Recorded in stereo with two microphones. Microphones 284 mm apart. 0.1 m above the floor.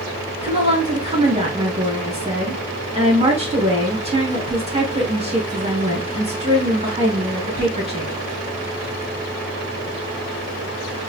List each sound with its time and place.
0.4 s a woman speaking: 20° right (ahead or behind), 1.2 m